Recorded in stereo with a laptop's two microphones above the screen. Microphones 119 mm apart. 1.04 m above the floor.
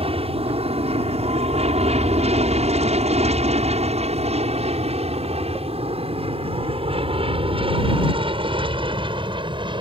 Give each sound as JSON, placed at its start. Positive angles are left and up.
{"t": 0.0, "sound": "an aircraft", "side_deg": -55}